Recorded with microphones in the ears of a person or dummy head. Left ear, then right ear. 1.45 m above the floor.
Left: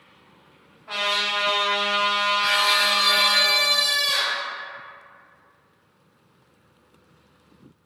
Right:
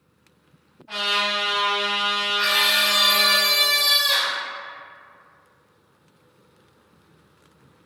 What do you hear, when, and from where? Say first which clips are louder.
0.9 s a trumpet: right 1 dB; 45° left (ahead or behind), 1.6 m
2.4 s a scream: right 2 dB; 50° right (ahead or behind), 0.7 m